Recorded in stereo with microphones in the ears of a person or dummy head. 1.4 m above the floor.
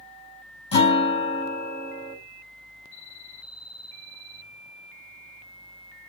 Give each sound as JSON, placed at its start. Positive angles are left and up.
{"t": 0.7, "sound": "a guitar", "side_deg": 35, "distance_m": 6.0}